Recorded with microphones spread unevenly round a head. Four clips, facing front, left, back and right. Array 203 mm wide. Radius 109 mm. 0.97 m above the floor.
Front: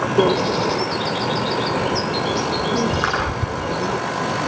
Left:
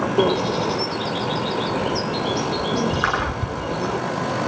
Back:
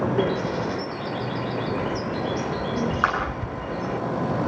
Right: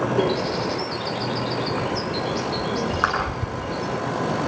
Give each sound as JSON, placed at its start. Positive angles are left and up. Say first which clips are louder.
{"t": 0.2, "sound": "a bird", "louder": "left 3 dB, front 7 dB", "azimuth_deg": 15, "distance_m": 1.5}
{"t": 3.0, "sound": "a clap", "louder": "right 3 dB, front 1 dB", "azimuth_deg": -90, "distance_m": 9.5}